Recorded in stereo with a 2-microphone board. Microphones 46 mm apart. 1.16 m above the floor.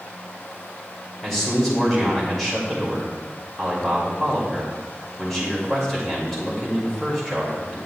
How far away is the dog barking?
I don't hear a dog barking.